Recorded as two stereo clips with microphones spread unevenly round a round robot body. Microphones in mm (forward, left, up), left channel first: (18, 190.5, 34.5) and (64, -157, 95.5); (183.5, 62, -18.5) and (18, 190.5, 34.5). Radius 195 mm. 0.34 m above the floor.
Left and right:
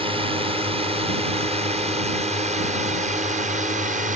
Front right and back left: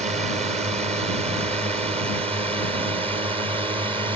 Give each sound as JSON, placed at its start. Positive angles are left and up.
{"t": 0.0, "sound": "a drone", "azimuth_deg": -160}